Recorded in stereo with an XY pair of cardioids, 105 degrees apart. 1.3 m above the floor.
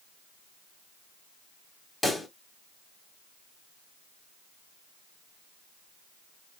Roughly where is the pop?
Ahead.